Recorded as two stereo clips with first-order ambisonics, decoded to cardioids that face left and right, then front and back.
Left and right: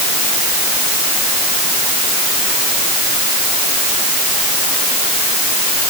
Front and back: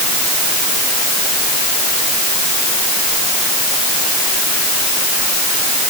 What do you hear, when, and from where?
Only background noise.